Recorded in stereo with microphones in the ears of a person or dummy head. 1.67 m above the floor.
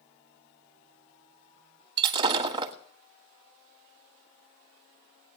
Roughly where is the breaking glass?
Right.